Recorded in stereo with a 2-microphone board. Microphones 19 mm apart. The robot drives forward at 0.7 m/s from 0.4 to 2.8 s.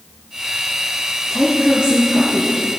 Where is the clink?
No clink in this recording.